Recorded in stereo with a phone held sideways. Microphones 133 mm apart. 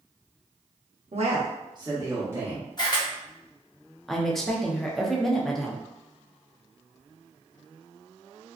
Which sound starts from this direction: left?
A camera shutter, at 2.8 s.